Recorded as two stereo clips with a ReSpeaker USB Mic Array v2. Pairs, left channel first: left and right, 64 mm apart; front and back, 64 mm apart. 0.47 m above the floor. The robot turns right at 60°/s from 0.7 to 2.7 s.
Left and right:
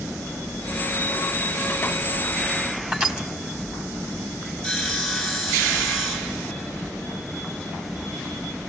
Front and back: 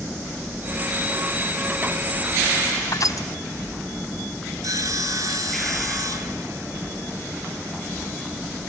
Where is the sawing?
Straight behind, 8 m.